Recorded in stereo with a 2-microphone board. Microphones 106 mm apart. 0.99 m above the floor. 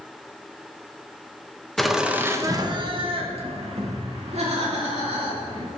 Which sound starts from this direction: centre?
Laughter, at 1.8 s.